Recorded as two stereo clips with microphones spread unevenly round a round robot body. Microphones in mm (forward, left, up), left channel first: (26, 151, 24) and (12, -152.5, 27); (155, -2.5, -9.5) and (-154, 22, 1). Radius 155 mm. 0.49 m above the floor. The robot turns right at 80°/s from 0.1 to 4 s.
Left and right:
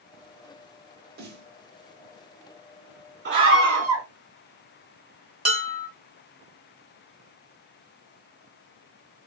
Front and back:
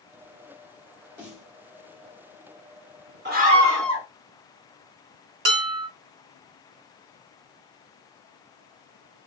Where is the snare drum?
105° right, 1.1 m; by 1.5 s 80° right, 1.1 m.